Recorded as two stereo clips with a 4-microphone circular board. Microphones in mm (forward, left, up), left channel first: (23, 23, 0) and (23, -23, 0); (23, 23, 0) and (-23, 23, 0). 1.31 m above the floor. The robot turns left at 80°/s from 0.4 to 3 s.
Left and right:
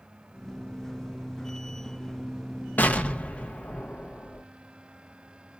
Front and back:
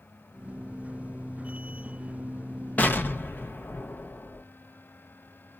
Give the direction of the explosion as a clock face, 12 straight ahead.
10 o'clock.